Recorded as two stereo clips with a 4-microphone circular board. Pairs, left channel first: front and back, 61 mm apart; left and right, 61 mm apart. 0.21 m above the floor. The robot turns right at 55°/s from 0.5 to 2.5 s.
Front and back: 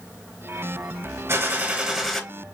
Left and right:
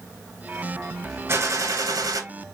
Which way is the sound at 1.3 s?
140° right.